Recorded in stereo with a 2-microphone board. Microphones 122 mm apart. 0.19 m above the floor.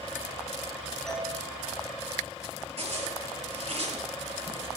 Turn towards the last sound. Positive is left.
turn(degrees=-60)  # may be behind; listen again after turning